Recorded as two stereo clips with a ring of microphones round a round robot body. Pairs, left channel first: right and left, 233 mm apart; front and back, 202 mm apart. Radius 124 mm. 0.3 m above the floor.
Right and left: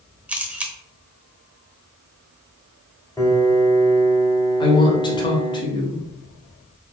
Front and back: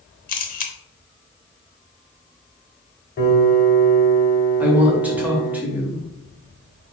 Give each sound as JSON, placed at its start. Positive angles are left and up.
{"t": 0.3, "sound": "a camera shutter", "azimuth_deg": 10, "distance_m": 0.8}
{"t": 3.2, "sound": "a piano", "azimuth_deg": -15, "distance_m": 1.1}
{"t": 4.6, "sound": "a woman speaking", "azimuth_deg": -110, "distance_m": 0.9}